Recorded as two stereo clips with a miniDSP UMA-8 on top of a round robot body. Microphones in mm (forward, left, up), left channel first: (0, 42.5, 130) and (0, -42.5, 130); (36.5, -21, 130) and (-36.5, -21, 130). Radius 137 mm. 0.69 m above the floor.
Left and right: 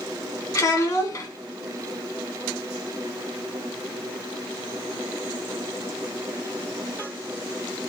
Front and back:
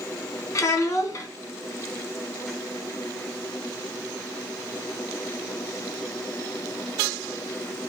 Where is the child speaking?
45° left, 1.1 m.